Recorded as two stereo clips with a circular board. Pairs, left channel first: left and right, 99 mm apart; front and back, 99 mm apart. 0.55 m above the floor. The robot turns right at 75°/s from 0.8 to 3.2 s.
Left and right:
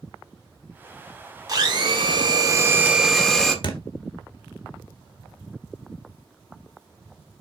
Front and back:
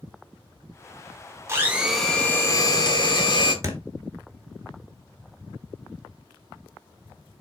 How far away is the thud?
About 1.6 m.